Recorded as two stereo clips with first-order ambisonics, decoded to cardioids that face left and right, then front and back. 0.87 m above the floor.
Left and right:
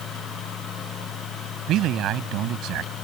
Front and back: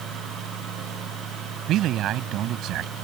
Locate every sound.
1.7 s a man speaking: 135° right